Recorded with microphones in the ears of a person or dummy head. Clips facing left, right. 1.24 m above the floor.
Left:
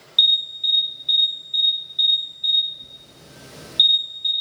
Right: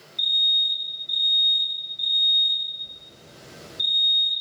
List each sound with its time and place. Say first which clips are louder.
0.2 s an alarm: left 5 dB; 75° left (ahead or behind), 1.2 m